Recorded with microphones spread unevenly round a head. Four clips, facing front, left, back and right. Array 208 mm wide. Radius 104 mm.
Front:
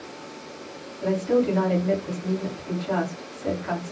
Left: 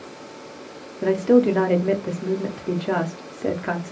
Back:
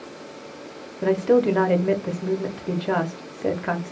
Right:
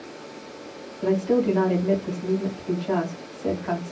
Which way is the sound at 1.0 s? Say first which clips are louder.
Left 4 dB, back 4 dB; 130° left.